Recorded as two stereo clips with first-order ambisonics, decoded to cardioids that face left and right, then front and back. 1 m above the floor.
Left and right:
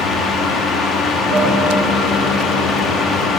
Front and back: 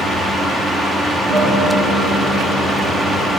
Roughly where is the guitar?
Behind.